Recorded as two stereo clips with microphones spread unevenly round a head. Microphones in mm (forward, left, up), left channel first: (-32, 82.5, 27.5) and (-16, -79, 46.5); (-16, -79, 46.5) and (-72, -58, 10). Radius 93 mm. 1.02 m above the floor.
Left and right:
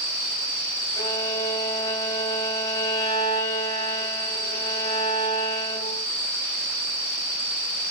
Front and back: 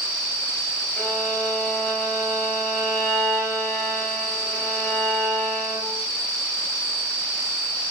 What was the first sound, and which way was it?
A violin, 25° left.